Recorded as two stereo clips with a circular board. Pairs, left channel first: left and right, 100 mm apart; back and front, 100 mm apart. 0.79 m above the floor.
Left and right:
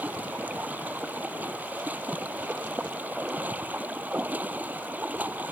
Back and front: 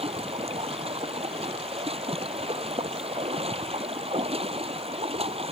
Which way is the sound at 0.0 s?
15° right.